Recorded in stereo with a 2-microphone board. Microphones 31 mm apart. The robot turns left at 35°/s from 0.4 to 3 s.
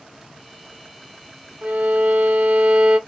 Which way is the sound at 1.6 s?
90° right.